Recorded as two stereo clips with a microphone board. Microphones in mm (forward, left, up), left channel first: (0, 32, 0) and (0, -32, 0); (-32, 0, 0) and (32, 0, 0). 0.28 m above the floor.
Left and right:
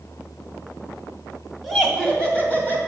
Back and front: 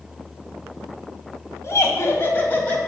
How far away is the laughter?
About 2 m.